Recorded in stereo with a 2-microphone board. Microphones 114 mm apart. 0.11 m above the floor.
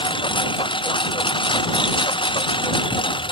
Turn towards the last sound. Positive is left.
turn(degrees=45)  # may be behind; listen again after turning